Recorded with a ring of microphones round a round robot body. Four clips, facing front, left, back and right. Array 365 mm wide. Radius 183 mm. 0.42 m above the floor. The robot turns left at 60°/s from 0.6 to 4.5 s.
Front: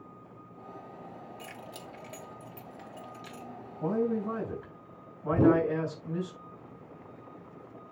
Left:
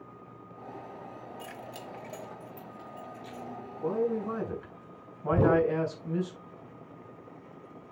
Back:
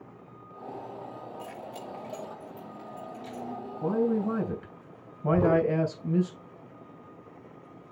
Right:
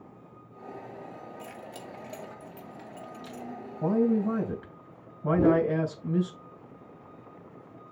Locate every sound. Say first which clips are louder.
1.4 s keys jangling: even, back 5 dB; 40° left, 3.5 m; by 3.5 s 85° right, 3.5 m
3.8 s a man speaking: right 5 dB, back 3 dB; 100° right, 3 m; by 6.3 s 145° right, 3 m
5.3 s a whoosh: right 2 dB, even; 70° left, 3 m